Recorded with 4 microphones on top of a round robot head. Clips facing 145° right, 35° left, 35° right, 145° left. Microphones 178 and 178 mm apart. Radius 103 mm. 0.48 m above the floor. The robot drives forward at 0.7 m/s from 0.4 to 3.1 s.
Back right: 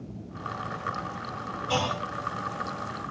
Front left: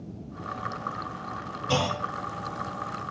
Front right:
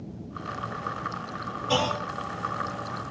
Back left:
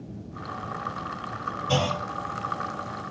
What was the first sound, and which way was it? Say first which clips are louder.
A clunk: front left 2 dB, even; 70° left.